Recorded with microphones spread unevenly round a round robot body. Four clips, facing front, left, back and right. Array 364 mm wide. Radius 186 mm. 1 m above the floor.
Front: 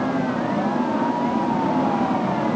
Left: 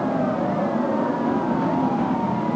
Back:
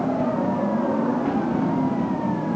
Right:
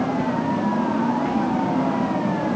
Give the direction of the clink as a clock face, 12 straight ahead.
I don't hear a clink.